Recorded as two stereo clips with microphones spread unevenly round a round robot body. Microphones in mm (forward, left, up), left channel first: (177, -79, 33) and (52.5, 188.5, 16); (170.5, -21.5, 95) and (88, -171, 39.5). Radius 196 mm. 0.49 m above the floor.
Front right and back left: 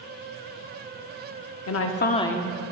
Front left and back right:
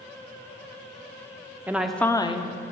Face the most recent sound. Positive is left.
turn(degrees=90)